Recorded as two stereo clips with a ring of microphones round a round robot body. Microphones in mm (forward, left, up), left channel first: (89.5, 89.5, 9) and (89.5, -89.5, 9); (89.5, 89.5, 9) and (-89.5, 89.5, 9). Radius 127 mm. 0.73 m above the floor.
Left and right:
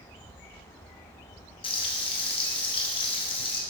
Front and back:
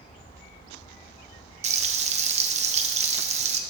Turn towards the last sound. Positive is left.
turn(degrees=145)